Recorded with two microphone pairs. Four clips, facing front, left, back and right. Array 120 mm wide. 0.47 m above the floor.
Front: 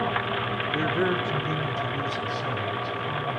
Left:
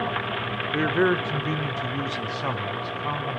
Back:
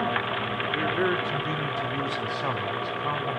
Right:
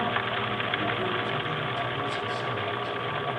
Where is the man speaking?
75° left, 1.4 m; by 3.4 s 130° left, 4.5 m.